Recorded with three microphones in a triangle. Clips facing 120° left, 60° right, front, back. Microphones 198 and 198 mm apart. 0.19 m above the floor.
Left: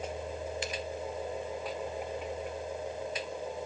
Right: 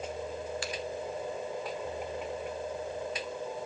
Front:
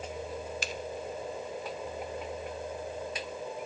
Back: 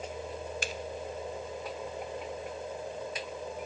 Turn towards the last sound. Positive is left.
turn(degrees=180)